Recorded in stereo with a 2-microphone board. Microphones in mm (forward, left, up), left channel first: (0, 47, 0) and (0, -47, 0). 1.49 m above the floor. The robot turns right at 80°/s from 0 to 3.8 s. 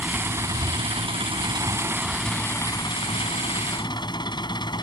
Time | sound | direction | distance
0.0 | an engine running | straight behind | ?